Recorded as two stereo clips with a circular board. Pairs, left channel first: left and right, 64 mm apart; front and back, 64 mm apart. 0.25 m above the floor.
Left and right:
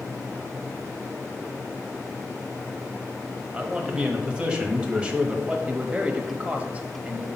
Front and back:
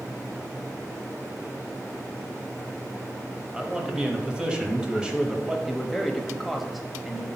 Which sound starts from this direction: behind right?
A man speaking, at 3.5 s.